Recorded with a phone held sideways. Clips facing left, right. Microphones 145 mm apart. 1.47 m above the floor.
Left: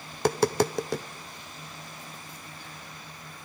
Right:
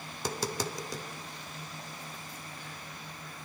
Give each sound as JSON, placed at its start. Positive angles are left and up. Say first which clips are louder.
{"t": 0.1, "sound": "tapping", "louder": "left 11 dB", "side_deg": 65, "distance_m": 0.5}